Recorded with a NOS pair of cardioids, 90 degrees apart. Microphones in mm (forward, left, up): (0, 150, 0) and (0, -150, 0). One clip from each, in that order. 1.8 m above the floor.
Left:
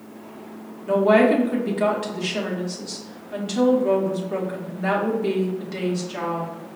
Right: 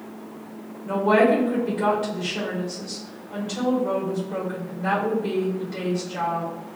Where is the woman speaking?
50° left, 1.9 m.